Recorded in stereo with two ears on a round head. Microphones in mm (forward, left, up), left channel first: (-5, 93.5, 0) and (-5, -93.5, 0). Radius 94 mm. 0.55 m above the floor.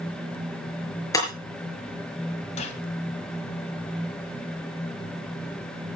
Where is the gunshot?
35° left (ahead or behind), 1.8 m.